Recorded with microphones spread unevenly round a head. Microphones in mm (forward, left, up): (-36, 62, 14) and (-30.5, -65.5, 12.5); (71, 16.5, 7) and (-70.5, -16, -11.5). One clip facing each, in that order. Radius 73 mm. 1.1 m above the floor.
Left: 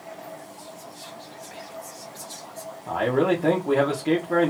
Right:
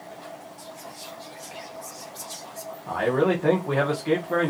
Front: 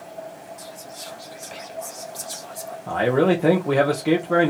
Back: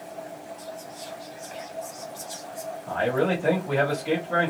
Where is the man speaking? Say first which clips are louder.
Left 1 dB, front 6 dB; 15° left, 1.1 m.